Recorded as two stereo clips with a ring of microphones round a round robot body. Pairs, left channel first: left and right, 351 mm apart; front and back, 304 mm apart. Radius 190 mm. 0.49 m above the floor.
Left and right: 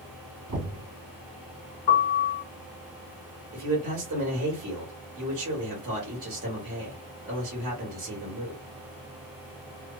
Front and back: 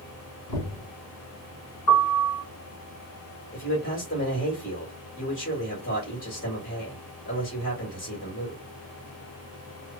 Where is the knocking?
45° right, 2 m.